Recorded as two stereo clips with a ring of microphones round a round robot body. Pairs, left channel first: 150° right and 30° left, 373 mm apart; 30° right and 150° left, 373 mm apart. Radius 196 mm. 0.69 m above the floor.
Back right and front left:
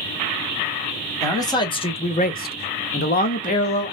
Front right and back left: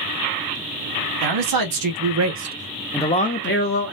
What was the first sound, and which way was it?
A man speaking, 130° left.